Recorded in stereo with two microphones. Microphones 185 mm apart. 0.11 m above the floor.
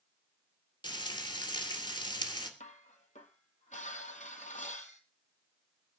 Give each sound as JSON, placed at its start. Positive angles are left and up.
{"t": 0.8, "sound": "frying", "side_deg": 25, "distance_m": 2.5}
{"t": 2.6, "sound": "dishes clattering", "side_deg": 40, "distance_m": 2.0}